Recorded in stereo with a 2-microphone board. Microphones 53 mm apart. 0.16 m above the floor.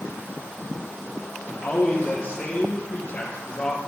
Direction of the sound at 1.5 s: 25° left (ahead or behind).